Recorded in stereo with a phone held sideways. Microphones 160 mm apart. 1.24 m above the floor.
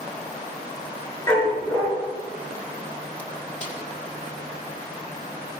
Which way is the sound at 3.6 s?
50° left (ahead or behind).